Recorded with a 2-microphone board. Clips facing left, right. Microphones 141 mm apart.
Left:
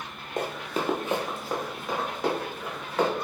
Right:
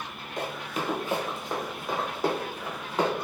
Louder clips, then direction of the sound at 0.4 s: Left 3 dB; 45° left (ahead or behind).